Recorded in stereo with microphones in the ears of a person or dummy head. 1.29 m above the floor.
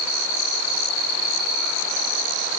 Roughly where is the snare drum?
No snare drum in this recording.